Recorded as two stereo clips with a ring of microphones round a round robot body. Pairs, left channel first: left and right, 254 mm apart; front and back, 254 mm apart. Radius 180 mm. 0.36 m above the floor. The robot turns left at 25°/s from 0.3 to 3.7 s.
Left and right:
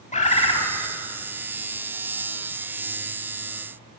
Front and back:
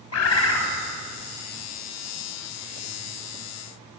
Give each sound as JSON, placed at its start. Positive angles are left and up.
{"t": 0.1, "sound": "a bird", "azimuth_deg": 25, "distance_m": 1.0}